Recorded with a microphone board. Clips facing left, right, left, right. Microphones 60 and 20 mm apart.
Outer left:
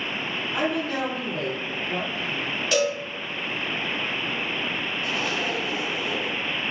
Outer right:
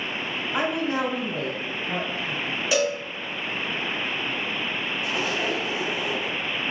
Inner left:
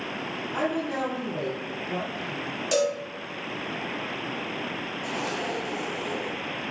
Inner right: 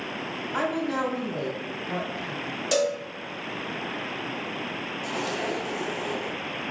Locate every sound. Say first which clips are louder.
0.5 s a woman speaking: outer right 1 dB, inner right 1 dB; 30° right (ahead or behind), 1.2 m
2.7 s a cowbell: even, even; 10° right (ahead or behind), 1.3 m
5.0 s a zipper: outer right 1 dB, inner right 1 dB; 15° right (ahead or behind), 1.0 m